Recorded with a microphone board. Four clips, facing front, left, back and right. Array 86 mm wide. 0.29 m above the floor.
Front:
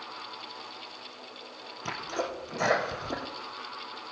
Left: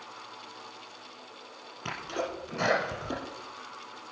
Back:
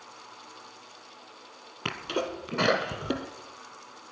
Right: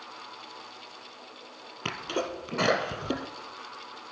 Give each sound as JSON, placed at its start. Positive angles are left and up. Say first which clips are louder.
{"t": 1.9, "sound": "a sneeze", "louder": "right 2 dB, back 2 dB", "azimuth_deg": -145, "distance_m": 3.0}